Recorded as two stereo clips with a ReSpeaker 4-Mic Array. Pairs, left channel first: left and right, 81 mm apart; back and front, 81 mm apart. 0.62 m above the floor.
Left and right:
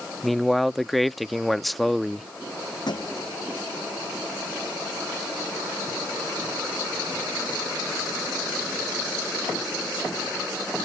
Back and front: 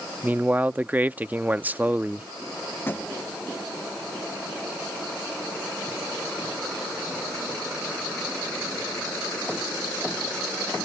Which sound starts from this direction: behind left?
A thud, at 2.9 s.